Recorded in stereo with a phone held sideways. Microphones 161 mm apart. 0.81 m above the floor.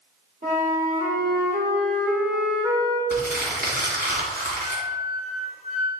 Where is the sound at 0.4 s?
65° right (ahead or behind), 2.5 m.